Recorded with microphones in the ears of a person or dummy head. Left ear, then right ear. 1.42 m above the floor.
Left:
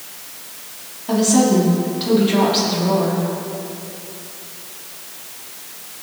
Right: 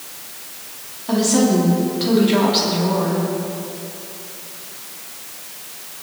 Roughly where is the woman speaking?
Centre.